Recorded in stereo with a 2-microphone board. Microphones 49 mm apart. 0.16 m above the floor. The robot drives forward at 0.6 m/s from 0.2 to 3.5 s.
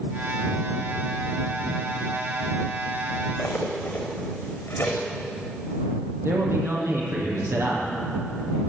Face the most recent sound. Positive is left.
turn(degrees=-65)  # may be behind; listen again after turning